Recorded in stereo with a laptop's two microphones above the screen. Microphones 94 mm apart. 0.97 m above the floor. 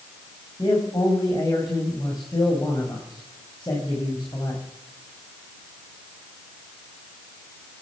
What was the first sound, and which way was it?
A man speaking, 45° left (ahead or behind).